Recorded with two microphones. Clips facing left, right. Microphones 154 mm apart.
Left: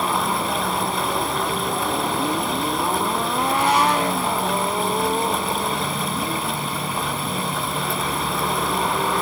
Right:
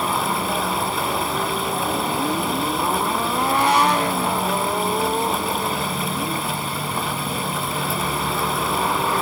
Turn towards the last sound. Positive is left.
No sound to turn to.